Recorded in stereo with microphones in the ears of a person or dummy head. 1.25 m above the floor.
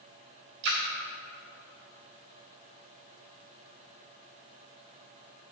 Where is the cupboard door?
I don't hear a cupboard door.